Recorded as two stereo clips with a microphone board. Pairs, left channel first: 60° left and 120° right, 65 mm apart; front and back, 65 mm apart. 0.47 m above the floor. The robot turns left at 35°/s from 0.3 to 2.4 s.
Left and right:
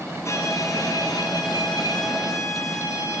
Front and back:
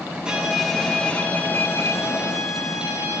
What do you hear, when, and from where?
0.2 s a violin: 105° left, 3 m; by 3.2 s 30° left, 3 m